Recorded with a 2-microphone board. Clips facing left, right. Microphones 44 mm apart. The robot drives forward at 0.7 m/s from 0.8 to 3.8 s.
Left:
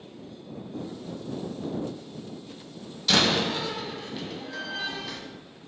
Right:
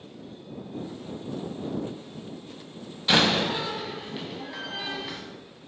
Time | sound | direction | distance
0.8 | laughter | 20° right (ahead or behind) | 1.0 m
3.1 | a door slam | 25° right (ahead or behind) | 0.7 m